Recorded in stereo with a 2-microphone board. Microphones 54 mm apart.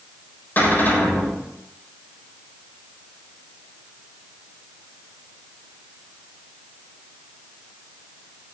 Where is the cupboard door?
35° left (ahead or behind), 7 m.